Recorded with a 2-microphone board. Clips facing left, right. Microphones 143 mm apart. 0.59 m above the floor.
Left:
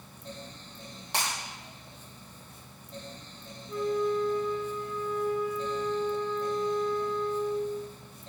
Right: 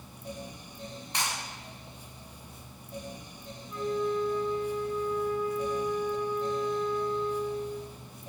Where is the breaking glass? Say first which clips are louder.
Left 2 dB; 85° left, 7.5 m.